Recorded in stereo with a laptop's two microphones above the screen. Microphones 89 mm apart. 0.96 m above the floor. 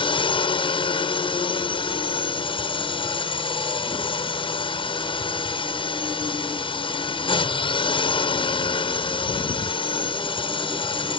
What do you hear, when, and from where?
0.0 s a drone: 65° left (ahead or behind)